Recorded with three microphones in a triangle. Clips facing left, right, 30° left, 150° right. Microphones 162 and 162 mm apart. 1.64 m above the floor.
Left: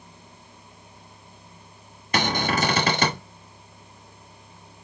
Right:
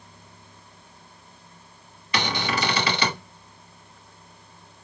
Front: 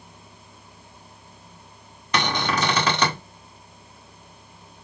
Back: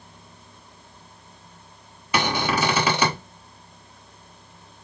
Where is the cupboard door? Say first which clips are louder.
Left 3 dB, back 1 dB; 130° left, 1.1 m.